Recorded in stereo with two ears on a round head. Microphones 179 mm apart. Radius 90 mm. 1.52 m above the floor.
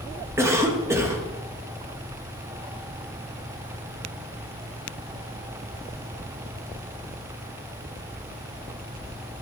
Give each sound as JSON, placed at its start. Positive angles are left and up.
{"t": 0.4, "sound": "a cough", "side_deg": -15, "distance_m": 1.5}